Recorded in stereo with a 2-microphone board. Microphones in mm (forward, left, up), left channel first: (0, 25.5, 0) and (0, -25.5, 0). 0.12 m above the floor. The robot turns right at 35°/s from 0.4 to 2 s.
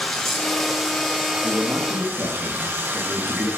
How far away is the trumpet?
No trumpet in this recording.